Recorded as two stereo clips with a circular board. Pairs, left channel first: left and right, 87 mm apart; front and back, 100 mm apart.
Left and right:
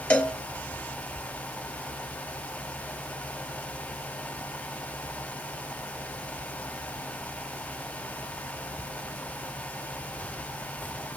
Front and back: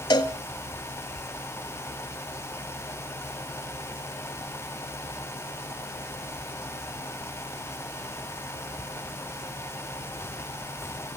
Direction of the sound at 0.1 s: 20° left.